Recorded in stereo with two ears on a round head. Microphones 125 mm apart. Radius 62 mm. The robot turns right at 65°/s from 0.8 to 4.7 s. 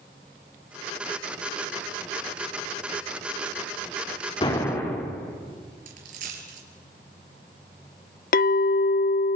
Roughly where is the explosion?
Left.